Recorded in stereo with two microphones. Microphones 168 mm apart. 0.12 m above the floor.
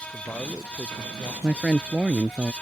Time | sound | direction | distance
0.1 | a man speaking | 5° left (ahead or behind) | ?
1.4 | a man speaking | 5° right (ahead or behind) | ?